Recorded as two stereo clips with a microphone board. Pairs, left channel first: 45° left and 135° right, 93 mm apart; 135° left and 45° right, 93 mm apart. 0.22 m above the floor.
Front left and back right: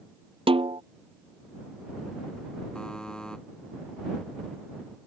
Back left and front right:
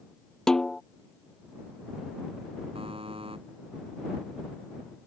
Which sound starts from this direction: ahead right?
A buzzer, at 2.8 s.